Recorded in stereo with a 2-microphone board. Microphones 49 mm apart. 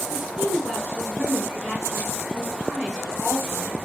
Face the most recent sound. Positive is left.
turn(degrees=-10)  # may be behind; listen again after turning